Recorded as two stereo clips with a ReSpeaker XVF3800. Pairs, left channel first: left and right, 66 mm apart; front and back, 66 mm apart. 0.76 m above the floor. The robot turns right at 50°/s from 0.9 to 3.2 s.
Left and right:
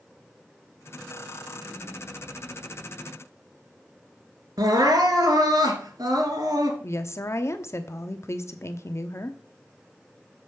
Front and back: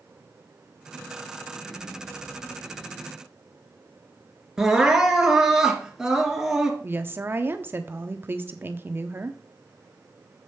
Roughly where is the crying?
Right.